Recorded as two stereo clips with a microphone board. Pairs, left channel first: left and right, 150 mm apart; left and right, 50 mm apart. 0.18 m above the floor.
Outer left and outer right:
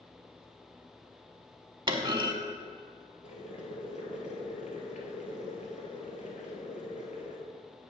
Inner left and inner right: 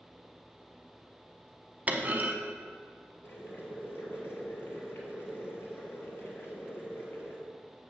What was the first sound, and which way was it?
A clunk, 30° right (ahead or behind).